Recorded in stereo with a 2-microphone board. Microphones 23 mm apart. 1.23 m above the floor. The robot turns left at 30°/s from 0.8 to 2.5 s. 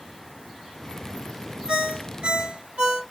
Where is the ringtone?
45° right (ahead or behind), 1.9 m; by 3.0 s 65° right (ahead or behind), 1.9 m.